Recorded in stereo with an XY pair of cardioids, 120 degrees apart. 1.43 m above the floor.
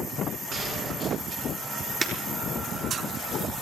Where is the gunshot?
60° right, 4 m.